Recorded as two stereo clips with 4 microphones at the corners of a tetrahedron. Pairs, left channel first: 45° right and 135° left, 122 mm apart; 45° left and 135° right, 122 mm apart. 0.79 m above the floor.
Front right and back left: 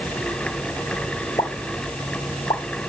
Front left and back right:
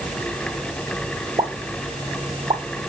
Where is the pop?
95° right, 1.0 m.